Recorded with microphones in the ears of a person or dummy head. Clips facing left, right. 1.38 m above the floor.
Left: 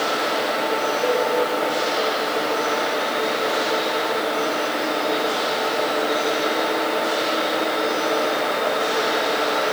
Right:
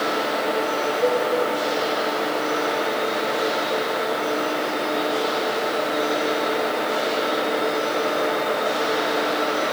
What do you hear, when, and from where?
1.0 s a cowbell: 40° right (ahead or behind), 4.5 m